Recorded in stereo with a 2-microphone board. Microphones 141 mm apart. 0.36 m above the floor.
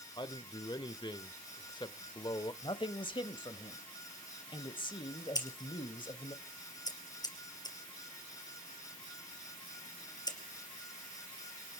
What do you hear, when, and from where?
0.2 s a man speaking: 30° left (ahead or behind), 0.9 m
2.6 s a man speaking: 35° left (ahead or behind), 1.3 m
5.3 s scissors: 25° left (ahead or behind), 3.5 m